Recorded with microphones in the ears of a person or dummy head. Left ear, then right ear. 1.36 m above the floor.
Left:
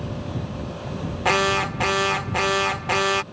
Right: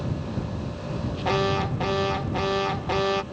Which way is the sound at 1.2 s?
50° left (ahead or behind).